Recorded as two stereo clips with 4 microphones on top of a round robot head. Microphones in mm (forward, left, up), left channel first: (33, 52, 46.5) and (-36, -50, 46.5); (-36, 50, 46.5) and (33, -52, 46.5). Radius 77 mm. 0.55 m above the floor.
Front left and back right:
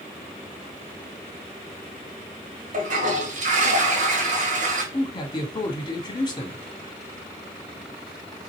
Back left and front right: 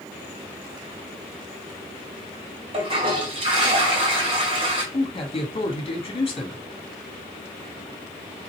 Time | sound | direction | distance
2.7 | a toilet flushing | 105° right | 1.8 m
4.9 | a man speaking | 100° left | 1.3 m